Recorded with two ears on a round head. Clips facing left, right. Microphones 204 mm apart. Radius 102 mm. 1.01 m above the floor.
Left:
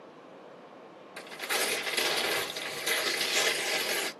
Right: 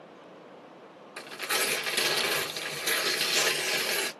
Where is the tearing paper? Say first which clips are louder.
Right 1 dB; 10° right (ahead or behind), 0.9 m.